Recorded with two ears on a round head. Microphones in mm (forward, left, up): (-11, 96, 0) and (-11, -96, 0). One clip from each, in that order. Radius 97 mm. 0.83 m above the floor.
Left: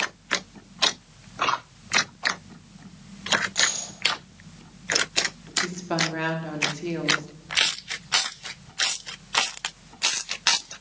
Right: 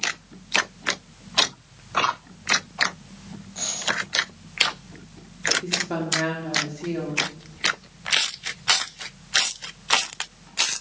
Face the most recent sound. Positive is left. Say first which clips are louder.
# even
turn(degrees=30)  # may be behind; listen again after turning